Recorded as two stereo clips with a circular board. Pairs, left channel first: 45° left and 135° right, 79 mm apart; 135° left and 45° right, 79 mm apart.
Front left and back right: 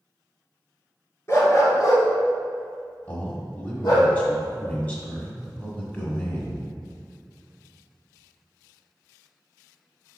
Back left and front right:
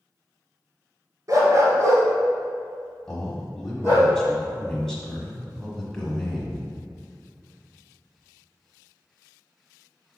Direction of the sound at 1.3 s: 5° right.